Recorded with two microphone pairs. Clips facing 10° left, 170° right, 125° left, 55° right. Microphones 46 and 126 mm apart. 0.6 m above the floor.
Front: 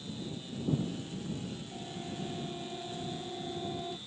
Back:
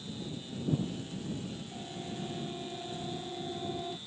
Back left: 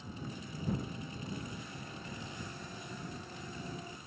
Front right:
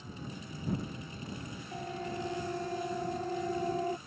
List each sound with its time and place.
1.7 s a siren: 80° right; by 4.0 s 85° right